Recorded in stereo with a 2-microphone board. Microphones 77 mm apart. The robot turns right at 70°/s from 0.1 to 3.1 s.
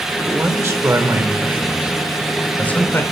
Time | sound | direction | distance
0.3 | a man speaking | 135° right | 1.0 m